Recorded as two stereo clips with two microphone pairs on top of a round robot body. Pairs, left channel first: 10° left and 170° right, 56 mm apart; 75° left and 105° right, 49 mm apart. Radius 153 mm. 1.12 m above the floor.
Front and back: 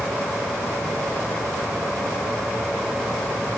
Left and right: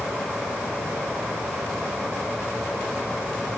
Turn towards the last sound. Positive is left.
No sound to turn to.